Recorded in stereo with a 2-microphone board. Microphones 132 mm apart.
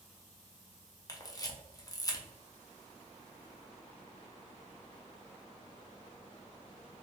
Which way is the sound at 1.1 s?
30° left (ahead or behind).